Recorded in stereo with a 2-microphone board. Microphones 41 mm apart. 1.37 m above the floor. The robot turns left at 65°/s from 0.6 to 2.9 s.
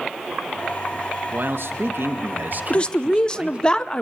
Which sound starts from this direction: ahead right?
A man speaking, at 1.3 s.